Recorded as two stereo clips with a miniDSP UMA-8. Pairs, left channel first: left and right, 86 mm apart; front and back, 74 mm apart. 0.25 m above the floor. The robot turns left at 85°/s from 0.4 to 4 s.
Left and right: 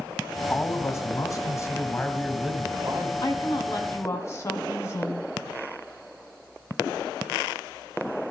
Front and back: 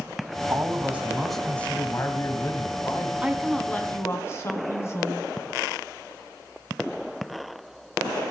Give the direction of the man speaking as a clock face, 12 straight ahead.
7 o'clock.